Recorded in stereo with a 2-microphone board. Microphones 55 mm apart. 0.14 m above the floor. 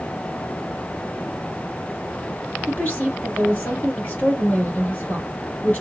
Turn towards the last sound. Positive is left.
turn(degrees=30)  # may be behind; listen again after turning